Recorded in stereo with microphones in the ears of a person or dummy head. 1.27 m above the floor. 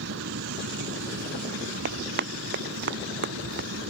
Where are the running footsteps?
60° right (ahead or behind); by 3.7 s 65° right (ahead or behind).